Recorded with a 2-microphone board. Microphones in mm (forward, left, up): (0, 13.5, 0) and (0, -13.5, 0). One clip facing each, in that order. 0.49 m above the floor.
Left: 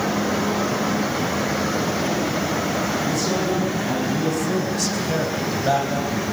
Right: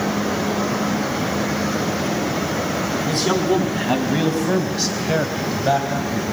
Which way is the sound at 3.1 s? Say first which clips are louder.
Right 3 dB; 65° right (ahead or behind).